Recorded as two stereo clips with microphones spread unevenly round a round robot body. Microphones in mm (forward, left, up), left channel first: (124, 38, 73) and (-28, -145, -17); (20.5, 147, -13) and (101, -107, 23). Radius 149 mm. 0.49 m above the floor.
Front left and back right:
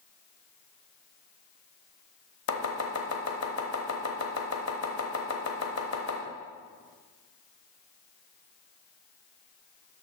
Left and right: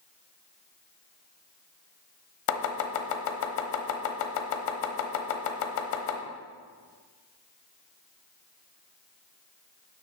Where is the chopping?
95° left, 1.0 m.